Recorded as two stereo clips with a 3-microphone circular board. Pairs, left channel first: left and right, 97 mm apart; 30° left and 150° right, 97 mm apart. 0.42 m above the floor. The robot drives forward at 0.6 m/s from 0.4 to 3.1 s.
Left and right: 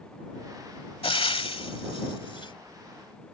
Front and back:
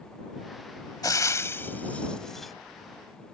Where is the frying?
80° left; by 2.5 s 120° left.